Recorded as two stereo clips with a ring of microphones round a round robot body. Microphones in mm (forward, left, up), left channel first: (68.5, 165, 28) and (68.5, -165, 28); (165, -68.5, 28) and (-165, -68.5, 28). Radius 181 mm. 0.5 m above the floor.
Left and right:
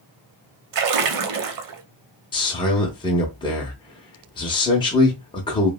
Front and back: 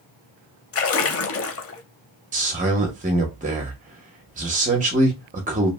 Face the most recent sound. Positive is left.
turn(degrees=150)